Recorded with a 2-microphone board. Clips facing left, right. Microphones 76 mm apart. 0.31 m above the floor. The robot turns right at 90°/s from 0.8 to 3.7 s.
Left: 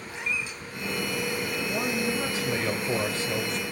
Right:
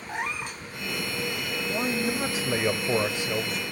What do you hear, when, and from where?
0.1 s a cat meowing: 60° right (ahead or behind), 0.7 m
1.7 s a man speaking: centre (ahead or behind), 0.9 m; by 3.6 s 5° right (ahead or behind), 0.9 m